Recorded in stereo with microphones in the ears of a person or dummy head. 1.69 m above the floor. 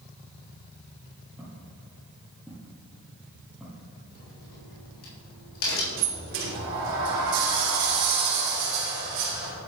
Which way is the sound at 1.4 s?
5° right (ahead or behind).